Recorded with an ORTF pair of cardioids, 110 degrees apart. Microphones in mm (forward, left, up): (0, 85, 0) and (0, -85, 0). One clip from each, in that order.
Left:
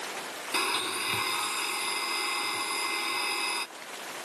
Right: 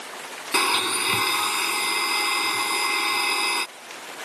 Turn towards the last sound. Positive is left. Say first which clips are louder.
# right 8 dB
turn(degrees=-40)